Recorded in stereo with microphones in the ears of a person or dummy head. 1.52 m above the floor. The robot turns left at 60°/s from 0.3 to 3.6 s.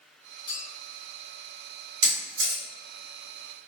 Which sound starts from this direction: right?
A camera shutter, at 2.0 s.